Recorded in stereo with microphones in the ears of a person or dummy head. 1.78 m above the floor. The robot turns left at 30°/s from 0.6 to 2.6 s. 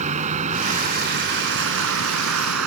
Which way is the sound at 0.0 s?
35° right.